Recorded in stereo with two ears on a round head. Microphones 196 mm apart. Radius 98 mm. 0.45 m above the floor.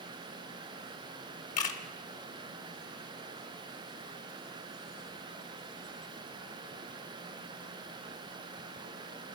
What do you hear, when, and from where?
1.6 s a camera shutter: 35° left (ahead or behind), 1.2 m